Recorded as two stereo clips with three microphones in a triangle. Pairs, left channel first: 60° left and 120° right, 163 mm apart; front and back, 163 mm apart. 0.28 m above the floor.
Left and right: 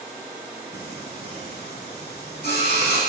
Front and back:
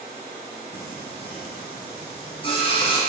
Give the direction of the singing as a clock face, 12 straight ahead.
10 o'clock.